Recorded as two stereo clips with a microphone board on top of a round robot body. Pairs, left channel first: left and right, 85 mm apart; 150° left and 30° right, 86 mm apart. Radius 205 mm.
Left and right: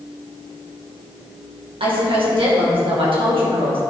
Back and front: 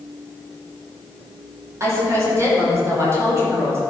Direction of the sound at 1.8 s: 85° right.